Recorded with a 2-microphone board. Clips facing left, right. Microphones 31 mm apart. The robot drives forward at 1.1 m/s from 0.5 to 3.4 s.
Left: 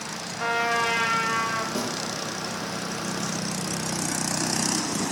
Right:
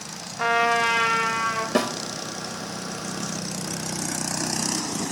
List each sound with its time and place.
0.4 s a trumpet: 15° right (ahead or behind), 1.2 m; by 1.6 s 10° right (ahead or behind), 2 m
1.8 s a snare drum: 60° right (ahead or behind), 1.0 m; by 1.9 s 50° right (ahead or behind), 1.1 m